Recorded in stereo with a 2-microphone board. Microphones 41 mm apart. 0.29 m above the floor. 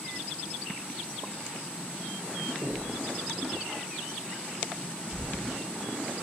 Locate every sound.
2.6 s knocking: 60° right (ahead or behind), 3.5 m
5.1 s footsteps: 85° right, 4 m